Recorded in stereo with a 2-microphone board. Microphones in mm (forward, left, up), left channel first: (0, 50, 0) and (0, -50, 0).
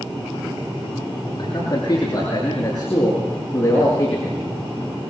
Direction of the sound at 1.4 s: 40° left (ahead or behind).